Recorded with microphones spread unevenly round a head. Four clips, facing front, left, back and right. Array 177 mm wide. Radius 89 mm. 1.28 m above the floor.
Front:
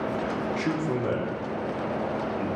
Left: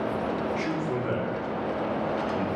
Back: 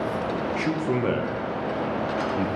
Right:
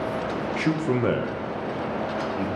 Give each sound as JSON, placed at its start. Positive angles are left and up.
{"t": 0.6, "sound": "a man speaking", "azimuth_deg": -85, "distance_m": 1.2}